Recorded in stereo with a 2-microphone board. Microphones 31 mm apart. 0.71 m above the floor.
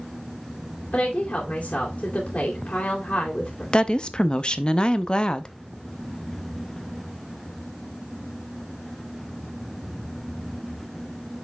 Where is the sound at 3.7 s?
30° left (ahead or behind), 0.5 m.